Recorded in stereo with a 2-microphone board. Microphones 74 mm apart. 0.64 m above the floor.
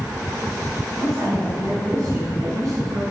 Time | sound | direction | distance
0.9 | a woman speaking | 45° right (ahead or behind) | 5 m